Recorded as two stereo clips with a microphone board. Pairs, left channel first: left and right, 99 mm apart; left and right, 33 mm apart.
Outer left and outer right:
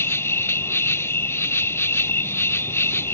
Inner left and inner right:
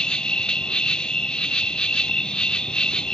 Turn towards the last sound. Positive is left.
turn(degrees=25)  # may be behind; listen again after turning